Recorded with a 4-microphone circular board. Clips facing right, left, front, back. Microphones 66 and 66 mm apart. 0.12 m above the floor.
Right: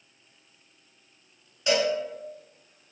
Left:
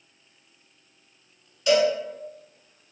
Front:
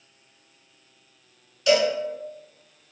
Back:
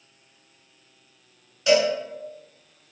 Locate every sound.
1.7 s a cowbell: 130° right, 1.7 m